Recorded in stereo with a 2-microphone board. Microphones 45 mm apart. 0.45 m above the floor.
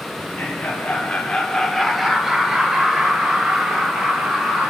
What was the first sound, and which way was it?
Laughter, 40° left (ahead or behind).